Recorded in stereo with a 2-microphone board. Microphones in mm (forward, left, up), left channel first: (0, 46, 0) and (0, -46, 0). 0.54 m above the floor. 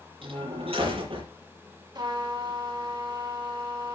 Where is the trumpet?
55° right (ahead or behind), 4.5 m.